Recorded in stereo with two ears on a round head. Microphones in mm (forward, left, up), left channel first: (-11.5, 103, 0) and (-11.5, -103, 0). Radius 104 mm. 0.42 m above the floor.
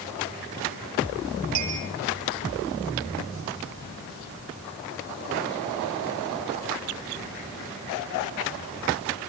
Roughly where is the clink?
Right.